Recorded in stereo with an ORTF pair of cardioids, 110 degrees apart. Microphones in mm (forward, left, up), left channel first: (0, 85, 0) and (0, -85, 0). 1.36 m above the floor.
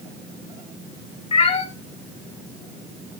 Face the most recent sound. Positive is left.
turn(degrees=35)